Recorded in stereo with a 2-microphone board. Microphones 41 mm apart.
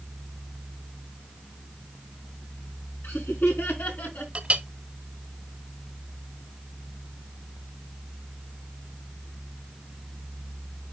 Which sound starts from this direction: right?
A clink, at 4.3 s.